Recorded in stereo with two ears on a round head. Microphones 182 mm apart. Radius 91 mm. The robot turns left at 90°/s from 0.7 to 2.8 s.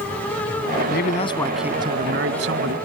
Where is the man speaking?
60° left; by 2.8 s 105° right.